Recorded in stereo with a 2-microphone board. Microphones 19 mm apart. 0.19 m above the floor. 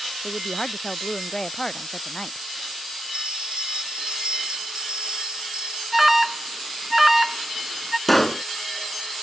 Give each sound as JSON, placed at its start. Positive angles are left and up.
{"t": 0.2, "sound": "a woman speaking", "side_deg": 30}
{"t": 3.1, "sound": "a bell", "side_deg": -70}
{"t": 5.9, "sound": "an alarm", "side_deg": -10}
{"t": 8.1, "sound": "a pop", "side_deg": 10}